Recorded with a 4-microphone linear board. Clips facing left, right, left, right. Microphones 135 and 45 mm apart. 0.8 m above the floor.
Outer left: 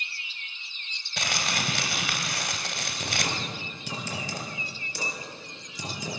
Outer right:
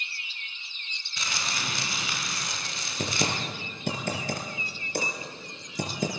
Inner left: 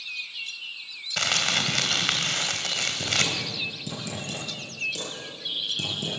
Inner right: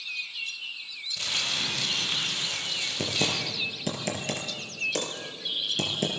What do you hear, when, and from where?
1.2 s crumpling: 75° left (ahead or behind), 3 m
3.0 s typing on a keyboard: 55° right (ahead or behind), 5 m